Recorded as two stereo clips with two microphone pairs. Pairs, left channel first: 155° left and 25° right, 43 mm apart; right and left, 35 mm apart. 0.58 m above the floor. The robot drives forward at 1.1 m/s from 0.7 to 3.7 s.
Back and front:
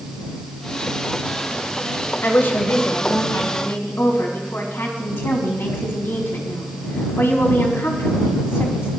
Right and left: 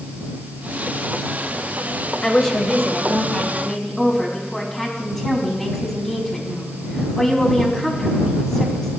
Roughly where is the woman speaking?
Behind.